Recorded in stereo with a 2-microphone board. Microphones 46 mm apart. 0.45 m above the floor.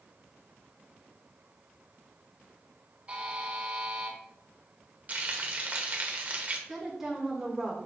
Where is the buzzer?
25° right (ahead or behind), 1.8 m.